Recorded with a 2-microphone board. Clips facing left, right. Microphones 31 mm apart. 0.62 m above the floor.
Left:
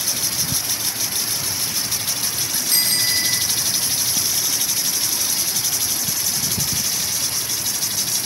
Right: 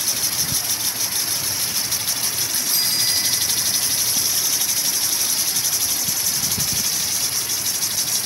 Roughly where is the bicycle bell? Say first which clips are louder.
Left 2 dB; left.